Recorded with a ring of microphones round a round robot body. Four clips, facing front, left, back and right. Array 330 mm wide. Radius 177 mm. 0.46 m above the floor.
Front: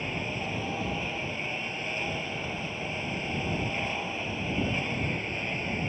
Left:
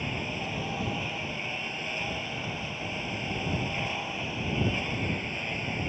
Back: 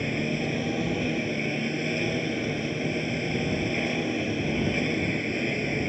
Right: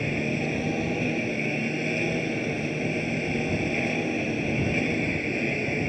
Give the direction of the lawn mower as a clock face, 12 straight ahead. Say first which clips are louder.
Right 7 dB, back 6 dB; 4 o'clock.